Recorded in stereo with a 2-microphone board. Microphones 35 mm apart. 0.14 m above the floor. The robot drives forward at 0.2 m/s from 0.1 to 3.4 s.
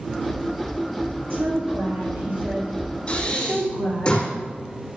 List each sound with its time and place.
1.3 s a woman speaking: 70° right (ahead or behind), 4.5 m; by 4.1 s 65° right (ahead or behind), 4.5 m
3.1 s breathing: 25° left (ahead or behind), 4.5 m